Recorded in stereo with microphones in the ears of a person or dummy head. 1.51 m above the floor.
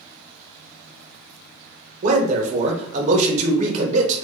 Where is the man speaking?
40° right (ahead or behind), 0.7 m.